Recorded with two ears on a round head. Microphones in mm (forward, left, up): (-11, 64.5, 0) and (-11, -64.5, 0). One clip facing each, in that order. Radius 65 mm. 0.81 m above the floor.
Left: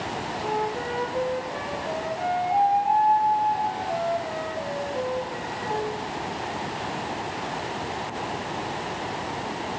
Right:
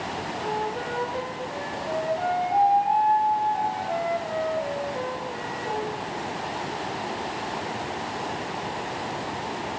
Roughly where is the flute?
Centre.